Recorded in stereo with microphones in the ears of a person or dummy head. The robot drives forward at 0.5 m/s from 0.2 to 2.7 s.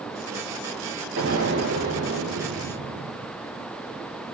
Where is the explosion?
60° right (ahead or behind), 2 m; by 3.3 s 45° right (ahead or behind), 2.5 m.